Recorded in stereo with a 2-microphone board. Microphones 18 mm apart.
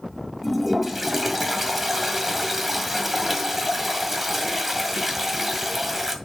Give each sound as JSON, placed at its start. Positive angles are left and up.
{"t": 0.4, "sound": "a toilet flushing", "side_deg": -5, "distance_m": 2.0}